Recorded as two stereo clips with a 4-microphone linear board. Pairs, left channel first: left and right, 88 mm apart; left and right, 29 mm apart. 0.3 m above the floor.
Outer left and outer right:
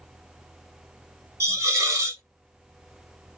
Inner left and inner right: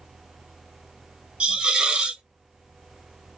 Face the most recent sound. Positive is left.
turn(degrees=-35)  # may be behind; listen again after turning